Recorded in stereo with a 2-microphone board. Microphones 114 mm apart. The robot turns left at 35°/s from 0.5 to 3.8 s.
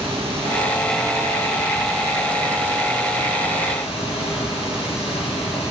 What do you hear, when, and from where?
0.0 s running water: 125° right, 3 m; by 5.7 s 120° left, 3 m